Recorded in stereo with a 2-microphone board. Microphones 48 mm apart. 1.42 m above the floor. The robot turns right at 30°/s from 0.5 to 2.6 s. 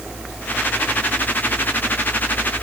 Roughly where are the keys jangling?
No keys jangling in this recording.